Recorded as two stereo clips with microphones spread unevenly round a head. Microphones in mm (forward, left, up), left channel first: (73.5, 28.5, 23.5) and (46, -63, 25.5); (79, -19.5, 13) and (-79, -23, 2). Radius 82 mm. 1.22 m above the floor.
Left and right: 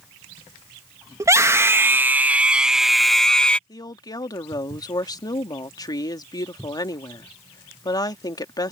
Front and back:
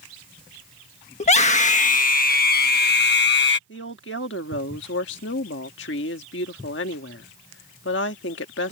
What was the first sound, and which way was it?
A scream, 50° right.